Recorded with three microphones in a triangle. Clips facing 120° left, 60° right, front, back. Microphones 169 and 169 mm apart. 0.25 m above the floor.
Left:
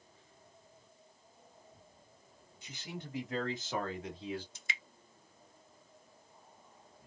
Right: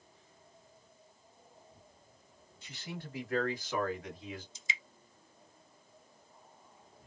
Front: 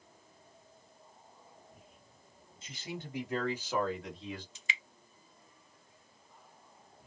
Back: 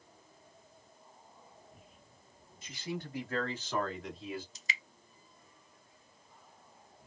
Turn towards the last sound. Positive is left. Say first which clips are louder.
# right 2 dB, even
turn(degrees=135)